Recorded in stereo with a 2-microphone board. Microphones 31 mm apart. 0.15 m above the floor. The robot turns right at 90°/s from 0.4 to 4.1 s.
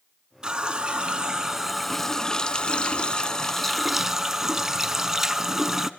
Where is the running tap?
125° right, 0.9 m; by 5.9 s 155° right, 0.9 m.